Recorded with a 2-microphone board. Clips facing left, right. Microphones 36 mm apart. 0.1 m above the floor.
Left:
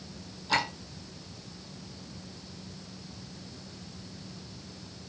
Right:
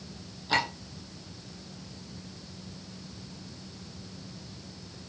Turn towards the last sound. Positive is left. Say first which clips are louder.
# right 1 dB
turn(degrees=-10)  # may be behind; listen again after turning